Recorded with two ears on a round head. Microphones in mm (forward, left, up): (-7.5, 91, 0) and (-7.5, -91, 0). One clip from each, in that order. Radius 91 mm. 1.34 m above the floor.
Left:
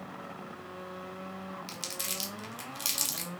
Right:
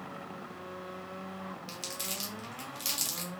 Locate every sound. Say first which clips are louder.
1.7 s crumpling: left 1 dB; 15° left (ahead or behind), 0.9 m